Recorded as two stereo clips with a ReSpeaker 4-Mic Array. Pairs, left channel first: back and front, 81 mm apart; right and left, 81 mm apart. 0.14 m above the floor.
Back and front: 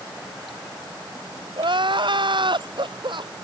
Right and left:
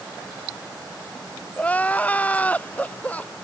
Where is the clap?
I don't hear a clap.